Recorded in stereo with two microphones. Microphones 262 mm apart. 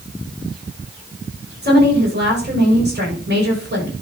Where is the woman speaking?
40° right (ahead or behind), 6 m.